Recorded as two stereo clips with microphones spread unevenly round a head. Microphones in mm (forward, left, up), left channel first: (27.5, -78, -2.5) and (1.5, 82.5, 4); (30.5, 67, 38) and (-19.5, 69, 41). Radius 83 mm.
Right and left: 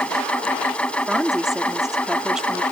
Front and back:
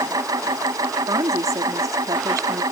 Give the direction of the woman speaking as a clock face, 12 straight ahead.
6 o'clock.